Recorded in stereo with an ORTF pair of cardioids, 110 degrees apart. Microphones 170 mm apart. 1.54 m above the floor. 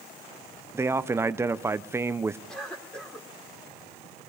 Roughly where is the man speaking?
Ahead.